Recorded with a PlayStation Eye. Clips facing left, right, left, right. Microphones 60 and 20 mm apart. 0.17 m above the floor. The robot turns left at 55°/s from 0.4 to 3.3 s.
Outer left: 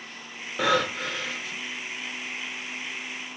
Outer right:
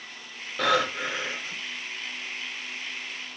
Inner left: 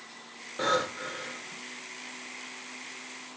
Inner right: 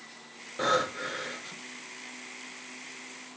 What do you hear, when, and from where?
0.6 s breathing: 10° left, 0.6 m; by 1.6 s 50° right, 0.6 m